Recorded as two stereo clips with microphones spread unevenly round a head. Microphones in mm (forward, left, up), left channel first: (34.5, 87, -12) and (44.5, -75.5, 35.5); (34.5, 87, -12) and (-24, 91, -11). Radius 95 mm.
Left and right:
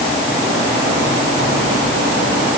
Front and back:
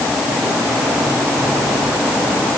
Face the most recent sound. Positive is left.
No sound to turn to.